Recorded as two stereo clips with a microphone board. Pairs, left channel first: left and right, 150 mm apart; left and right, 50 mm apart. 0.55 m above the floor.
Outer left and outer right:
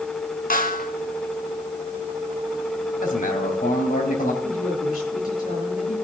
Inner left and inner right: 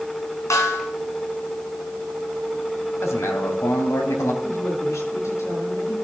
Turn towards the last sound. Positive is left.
turn(degrees=75)  # may be behind; listen again after turning